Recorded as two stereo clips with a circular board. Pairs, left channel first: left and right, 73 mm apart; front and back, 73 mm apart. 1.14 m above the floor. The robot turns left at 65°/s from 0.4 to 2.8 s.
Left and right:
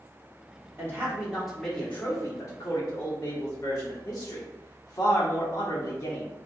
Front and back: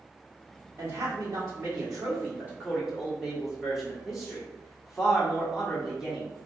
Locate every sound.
0.8 s a man speaking: 135° right, 1.1 m; by 6.3 s 95° left, 1.1 m